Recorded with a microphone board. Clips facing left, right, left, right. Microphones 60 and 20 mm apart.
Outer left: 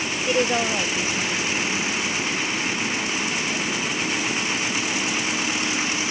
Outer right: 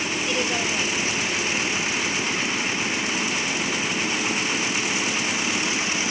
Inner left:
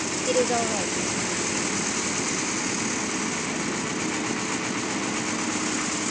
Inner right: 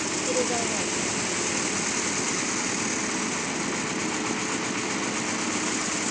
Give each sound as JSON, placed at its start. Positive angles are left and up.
{"t": 0.3, "sound": "a woman speaking", "side_deg": 30}